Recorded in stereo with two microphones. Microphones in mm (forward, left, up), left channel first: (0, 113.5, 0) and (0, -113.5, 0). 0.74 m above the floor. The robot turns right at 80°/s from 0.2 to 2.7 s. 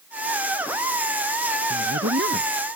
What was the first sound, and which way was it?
A woman speaking, 95° right.